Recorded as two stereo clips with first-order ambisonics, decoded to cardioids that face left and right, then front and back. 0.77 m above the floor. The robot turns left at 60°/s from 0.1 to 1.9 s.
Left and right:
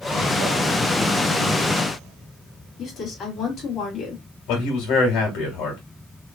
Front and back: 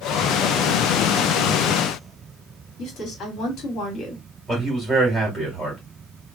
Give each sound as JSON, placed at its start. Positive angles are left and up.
{"t": 2.8, "sound": "a woman speaking", "azimuth_deg": 35, "distance_m": 1.8}
{"t": 4.5, "sound": "a man speaking", "azimuth_deg": 90, "distance_m": 1.5}